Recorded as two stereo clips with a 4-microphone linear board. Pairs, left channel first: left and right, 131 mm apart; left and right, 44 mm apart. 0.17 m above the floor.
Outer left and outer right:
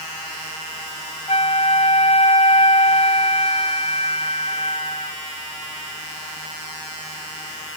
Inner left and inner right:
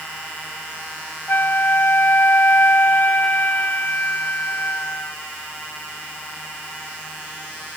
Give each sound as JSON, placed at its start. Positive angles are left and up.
{"t": 1.3, "sound": "a flute", "side_deg": 50}